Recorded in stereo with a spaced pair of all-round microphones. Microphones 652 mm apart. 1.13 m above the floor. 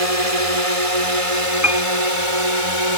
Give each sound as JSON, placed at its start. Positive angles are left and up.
{"t": 0.0, "sound": "a drone", "side_deg": -55}
{"t": 1.6, "sound": "a piano", "side_deg": -5}